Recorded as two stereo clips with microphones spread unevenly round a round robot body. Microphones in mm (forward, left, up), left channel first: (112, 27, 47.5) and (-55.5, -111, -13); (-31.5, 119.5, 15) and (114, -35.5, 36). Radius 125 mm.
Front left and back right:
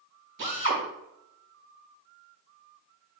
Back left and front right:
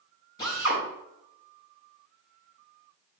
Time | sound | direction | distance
0.4 | a drill | 155° right | 3.5 m